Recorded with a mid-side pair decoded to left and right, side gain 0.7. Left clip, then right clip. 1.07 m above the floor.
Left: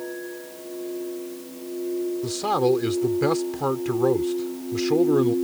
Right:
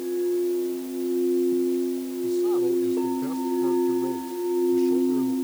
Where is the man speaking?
60° left.